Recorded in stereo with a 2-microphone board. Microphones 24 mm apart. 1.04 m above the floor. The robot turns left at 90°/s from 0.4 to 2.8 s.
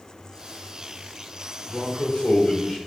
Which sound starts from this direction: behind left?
A man speaking, at 1.7 s.